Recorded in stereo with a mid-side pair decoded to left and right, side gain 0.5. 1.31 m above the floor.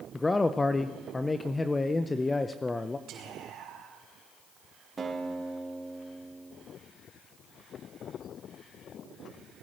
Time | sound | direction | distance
0.1 | a man speaking | 20° left | 0.7 m
3.1 | whispering | 70° right | 5 m
5.0 | a guitar | 30° right | 3.5 m